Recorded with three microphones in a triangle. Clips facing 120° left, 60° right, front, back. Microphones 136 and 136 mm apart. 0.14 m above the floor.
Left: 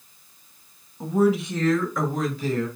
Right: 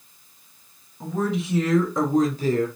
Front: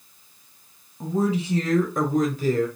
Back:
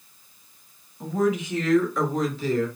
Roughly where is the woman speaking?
Ahead left.